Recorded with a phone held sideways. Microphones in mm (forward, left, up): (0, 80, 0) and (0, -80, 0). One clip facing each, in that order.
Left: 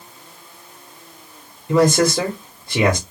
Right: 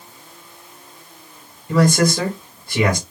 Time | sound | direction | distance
1.7 | a man speaking | 25° left (ahead or behind) | 1.0 m